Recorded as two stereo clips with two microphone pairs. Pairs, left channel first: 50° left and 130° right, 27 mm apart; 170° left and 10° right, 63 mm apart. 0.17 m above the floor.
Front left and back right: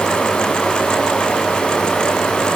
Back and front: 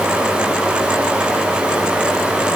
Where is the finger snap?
I don't hear a finger snap.